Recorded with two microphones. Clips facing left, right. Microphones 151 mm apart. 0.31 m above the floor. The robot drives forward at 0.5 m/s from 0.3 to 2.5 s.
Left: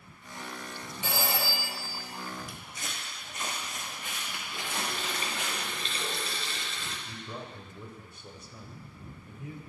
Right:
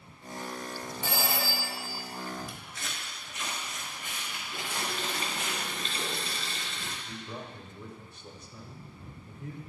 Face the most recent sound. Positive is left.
turn(degrees=10)  # may be behind; listen again after turning